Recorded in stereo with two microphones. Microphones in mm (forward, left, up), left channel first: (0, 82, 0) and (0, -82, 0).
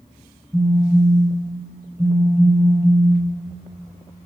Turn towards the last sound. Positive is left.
turn(degrees=-15)  # may be behind; listen again after turning